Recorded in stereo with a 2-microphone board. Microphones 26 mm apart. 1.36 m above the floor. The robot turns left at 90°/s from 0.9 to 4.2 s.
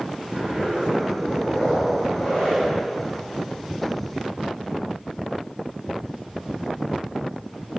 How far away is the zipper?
About 3 m.